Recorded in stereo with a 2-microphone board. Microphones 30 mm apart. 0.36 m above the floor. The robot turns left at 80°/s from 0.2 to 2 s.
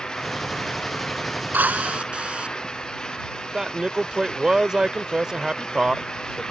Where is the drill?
105° right; by 2.5 s 140° right.